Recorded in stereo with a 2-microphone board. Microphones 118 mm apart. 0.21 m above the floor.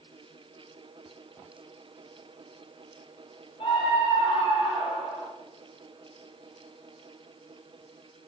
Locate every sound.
3.6 s a scream: 45° left (ahead or behind), 6 m; by 5.3 s 60° left (ahead or behind), 6.5 m